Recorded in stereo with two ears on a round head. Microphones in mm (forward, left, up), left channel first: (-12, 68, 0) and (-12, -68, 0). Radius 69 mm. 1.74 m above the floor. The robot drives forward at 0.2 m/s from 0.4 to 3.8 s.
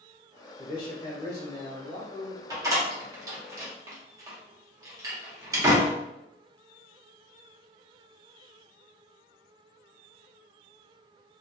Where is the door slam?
20° right (ahead or behind), 0.9 m.